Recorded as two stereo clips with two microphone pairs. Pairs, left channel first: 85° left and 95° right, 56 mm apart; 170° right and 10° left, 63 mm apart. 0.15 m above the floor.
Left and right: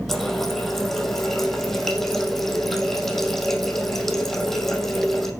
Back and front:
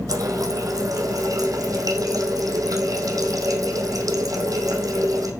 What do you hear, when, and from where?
0.1 s a running tap: 5° right, 3.5 m